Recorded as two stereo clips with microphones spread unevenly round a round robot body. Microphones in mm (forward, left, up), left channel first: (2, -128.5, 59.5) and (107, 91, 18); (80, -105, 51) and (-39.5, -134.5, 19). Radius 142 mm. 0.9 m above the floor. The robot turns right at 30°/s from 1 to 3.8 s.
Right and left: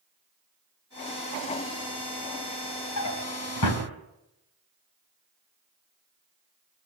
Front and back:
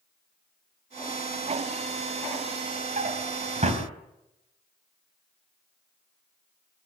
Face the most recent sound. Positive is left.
turn(degrees=-130)